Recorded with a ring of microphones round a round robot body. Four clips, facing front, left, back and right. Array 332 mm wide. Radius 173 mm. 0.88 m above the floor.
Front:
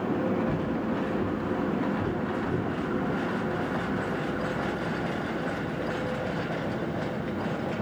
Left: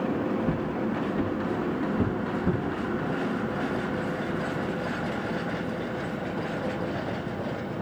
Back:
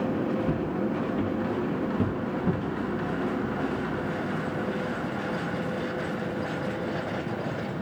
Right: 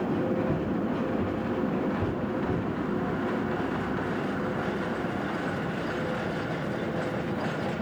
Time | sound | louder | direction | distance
0.4 | footsteps | even, back 1 dB | 125° left | 6.5 m